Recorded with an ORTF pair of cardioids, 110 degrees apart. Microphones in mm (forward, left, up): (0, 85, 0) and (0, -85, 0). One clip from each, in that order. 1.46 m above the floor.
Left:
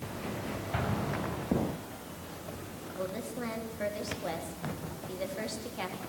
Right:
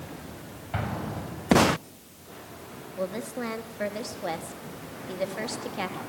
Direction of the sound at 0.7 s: 20° right.